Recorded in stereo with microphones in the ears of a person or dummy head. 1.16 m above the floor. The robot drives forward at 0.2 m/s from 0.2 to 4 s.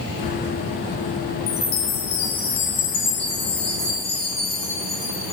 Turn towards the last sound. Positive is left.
turn(degrees=30)  # may be behind; listen again after turning